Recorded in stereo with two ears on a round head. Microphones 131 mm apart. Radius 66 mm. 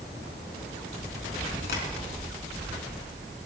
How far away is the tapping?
About 5.5 m.